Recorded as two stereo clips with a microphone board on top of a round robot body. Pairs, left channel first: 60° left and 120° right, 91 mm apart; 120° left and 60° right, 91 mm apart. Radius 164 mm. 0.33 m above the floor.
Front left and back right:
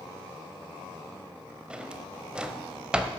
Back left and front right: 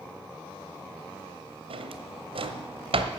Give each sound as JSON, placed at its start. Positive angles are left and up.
{"t": 1.7, "sound": "a drawer", "azimuth_deg": -40, "distance_m": 0.9}